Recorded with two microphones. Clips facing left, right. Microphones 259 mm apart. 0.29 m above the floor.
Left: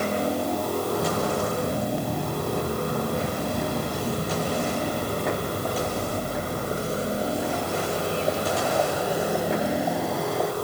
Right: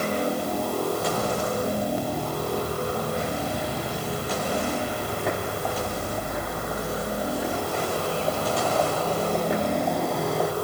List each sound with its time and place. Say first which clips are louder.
0.8 s footsteps: left 1 dB; 60° left (ahead or behind), 7 m; by 10.5 s centre (ahead or behind), 4.5 m